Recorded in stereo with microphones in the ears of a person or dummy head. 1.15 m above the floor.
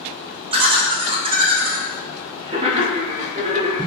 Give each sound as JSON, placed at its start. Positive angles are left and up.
{"t": 0.5, "sound": "laughter", "side_deg": -25, "distance_m": 0.7}